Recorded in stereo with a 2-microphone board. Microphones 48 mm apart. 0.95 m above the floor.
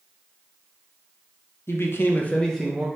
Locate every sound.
1.7 s a man speaking: 60° left (ahead or behind), 0.7 m; by 2.9 s 15° right (ahead or behind), 0.6 m